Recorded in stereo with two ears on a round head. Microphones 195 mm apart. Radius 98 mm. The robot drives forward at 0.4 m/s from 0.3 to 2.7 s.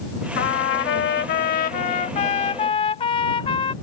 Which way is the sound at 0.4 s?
50° left (ahead or behind).